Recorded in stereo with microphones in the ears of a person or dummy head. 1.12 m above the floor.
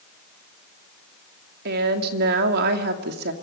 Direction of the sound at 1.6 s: 55° right (ahead or behind).